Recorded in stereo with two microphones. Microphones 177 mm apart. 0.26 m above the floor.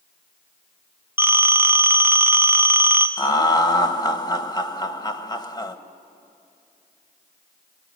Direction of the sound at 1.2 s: 10° right (ahead or behind).